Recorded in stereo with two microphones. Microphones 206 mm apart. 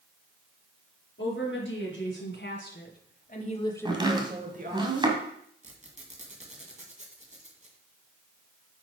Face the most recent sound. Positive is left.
turn(degrees=-35)  # may be behind; listen again after turning